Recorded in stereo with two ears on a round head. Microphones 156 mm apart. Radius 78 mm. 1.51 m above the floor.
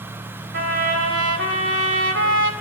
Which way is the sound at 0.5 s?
65° right (ahead or behind).